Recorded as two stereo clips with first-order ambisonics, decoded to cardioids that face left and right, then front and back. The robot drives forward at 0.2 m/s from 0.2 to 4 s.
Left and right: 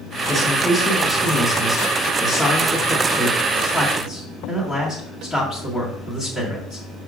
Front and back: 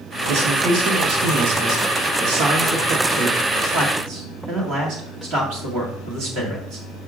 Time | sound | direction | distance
0.3 | a man speaking | 165° left | 1.0 m